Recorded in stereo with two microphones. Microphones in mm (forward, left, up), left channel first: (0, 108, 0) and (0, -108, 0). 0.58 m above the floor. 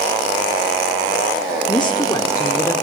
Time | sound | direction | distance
1.7 | a woman speaking | 20° left (ahead or behind) | 1.0 m